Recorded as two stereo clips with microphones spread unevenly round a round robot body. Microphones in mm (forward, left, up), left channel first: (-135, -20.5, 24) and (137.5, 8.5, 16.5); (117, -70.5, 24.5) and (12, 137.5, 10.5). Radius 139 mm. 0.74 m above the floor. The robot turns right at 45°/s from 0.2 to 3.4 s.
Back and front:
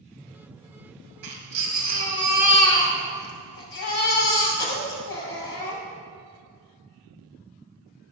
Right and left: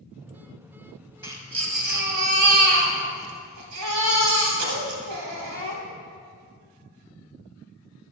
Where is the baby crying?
35° left, 2 m; by 5.8 s 135° left, 2 m.